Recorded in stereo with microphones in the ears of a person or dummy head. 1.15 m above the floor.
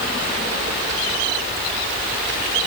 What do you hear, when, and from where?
Only background noise.